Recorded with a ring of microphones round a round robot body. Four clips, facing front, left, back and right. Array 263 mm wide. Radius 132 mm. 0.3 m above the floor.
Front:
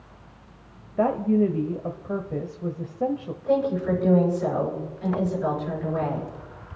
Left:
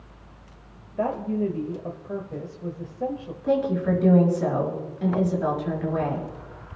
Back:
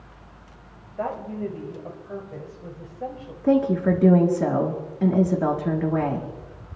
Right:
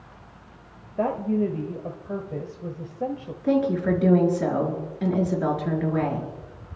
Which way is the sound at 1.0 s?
15° right.